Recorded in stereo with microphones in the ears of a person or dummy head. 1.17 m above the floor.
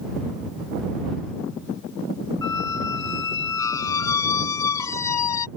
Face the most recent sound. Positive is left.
turn(degrees=25)  # may be behind; listen again after turning